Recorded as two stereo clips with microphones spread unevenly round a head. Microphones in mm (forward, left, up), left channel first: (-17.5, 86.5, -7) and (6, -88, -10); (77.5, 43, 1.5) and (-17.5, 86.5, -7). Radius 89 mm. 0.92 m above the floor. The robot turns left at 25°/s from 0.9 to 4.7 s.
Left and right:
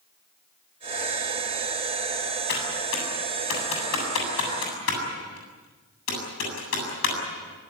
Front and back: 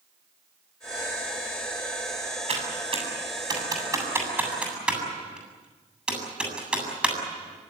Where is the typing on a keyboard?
130° left, 7.5 m; by 7.2 s 75° left, 7.5 m.